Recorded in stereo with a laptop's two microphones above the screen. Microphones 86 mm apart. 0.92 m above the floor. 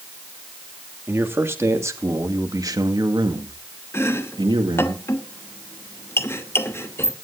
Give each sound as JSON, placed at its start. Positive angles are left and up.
{"t": 1.1, "sound": "a man speaking", "side_deg": -25, "distance_m": 2.0}
{"t": 3.9, "sound": "chopping", "side_deg": 30, "distance_m": 0.9}